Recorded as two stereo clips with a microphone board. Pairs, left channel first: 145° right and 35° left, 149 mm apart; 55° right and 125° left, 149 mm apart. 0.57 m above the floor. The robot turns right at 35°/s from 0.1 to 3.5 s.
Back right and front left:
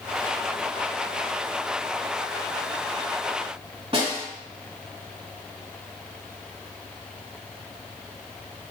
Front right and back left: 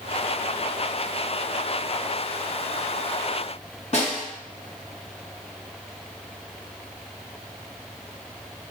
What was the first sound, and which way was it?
A snare drum, 15° right.